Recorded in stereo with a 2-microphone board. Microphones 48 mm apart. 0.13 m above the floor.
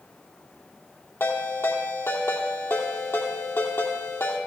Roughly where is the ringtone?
Left.